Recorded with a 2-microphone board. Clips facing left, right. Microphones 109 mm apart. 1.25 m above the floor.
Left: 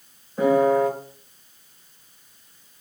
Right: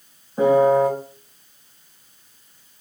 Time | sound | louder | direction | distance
0.4 | a piano | right 3 dB | 25° right (ahead or behind) | 0.7 m